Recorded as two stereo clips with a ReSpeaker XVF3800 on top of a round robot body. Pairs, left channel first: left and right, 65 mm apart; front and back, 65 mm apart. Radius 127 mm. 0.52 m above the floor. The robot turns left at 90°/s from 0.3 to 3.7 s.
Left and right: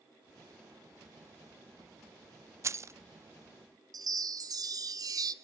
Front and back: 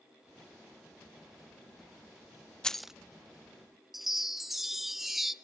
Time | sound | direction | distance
2.6 | keys jangling | 75° right | 0.5 m
3.9 | a chime | 95° right | 1.2 m